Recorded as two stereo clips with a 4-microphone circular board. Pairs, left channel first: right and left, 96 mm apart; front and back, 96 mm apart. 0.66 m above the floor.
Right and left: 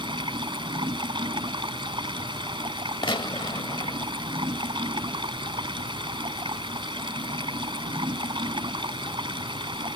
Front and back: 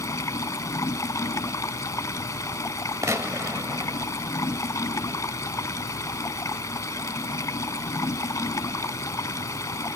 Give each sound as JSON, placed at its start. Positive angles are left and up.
{"t": 0.0, "sound": "running water", "azimuth_deg": 55}
{"t": 3.0, "sound": "a gunshot", "azimuth_deg": -125}